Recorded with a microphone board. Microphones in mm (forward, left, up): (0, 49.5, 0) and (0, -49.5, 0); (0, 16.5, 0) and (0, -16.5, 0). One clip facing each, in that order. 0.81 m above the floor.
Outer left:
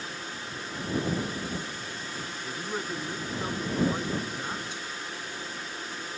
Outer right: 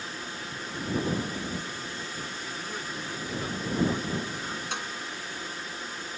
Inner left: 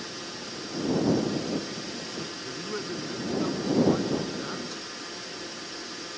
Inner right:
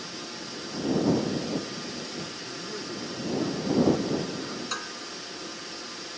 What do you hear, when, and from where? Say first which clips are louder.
2.4 s a man speaking: outer left 3 dB, inner left 2 dB; 35° left (ahead or behind); by 4.6 s 30° left (ahead or behind)
4.7 s dishes clattering: outer right 3 dB, inner right 4 dB; 85° right